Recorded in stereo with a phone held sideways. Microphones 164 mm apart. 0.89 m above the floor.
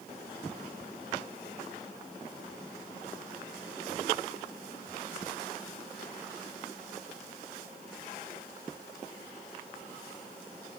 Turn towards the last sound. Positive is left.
No sound to turn to.